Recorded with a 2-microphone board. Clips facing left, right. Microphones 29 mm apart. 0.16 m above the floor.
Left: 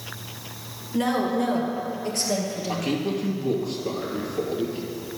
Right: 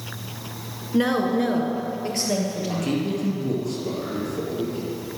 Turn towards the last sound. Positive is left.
turn(degrees=10)  # may be behind; listen again after turning